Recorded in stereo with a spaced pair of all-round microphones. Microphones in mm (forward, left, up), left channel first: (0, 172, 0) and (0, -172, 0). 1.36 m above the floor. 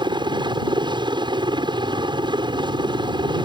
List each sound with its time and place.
0.0 s a helicopter: 15° right (ahead or behind)